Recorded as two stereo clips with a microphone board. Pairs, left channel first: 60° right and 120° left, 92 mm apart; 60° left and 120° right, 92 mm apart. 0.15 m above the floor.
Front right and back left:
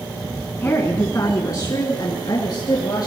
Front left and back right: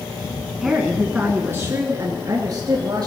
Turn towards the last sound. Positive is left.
turn(degrees=-90)